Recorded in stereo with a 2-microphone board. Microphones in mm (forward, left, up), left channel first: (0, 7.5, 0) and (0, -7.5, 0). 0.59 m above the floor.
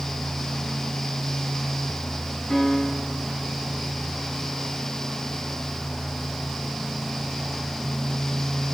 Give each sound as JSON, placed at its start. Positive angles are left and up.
{"t": 2.5, "sound": "a piano", "side_deg": 25, "distance_m": 3.5}